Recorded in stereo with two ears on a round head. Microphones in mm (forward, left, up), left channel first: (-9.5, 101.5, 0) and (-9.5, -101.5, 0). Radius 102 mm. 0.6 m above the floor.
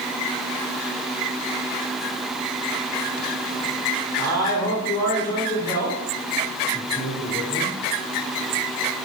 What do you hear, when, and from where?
4.2 s a man speaking: 15° left (ahead or behind), 1.8 m